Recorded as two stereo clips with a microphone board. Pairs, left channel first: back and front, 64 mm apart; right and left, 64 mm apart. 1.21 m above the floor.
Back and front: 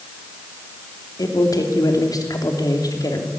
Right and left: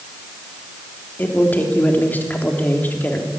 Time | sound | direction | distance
1.2 | a man speaking | 155° right | 3 m